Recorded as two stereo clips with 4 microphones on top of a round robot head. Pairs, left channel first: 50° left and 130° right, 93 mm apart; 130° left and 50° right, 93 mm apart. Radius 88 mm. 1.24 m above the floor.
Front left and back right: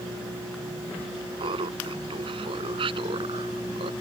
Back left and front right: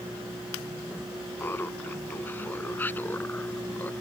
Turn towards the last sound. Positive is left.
turn(degrees=-155)